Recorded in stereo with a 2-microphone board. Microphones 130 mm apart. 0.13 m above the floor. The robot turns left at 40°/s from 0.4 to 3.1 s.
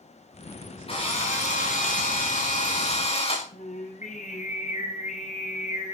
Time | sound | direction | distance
0.9 | a drill | 135° left | 8 m
3.5 | singing | 80° left | 7 m